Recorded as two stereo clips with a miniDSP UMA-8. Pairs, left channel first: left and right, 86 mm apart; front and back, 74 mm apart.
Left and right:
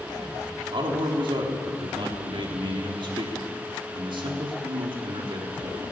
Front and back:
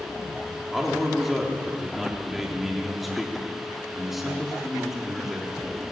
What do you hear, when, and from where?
0.7 s a man speaking: 90° right, 4 m